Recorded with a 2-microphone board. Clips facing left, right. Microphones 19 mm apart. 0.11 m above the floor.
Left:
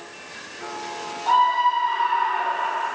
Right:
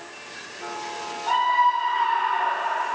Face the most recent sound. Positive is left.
turn(degrees=10)  # may be behind; listen again after turning